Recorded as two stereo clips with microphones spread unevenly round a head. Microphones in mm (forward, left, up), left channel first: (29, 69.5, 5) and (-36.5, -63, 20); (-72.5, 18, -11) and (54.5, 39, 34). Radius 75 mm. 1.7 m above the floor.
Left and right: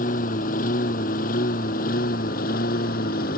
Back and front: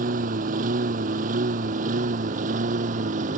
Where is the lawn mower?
25° left; by 3.4 s 30° left.